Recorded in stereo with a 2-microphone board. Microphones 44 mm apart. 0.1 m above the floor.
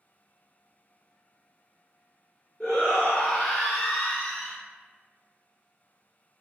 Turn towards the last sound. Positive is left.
turn(degrees=15)  # may be behind; listen again after turning